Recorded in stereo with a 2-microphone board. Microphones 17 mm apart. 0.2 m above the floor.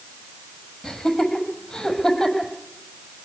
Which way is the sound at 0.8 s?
45° left (ahead or behind).